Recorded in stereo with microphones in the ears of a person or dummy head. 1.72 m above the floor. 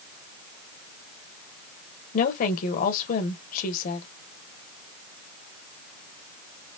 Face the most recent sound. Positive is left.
turn(degrees=50)  # may be behind; listen again after turning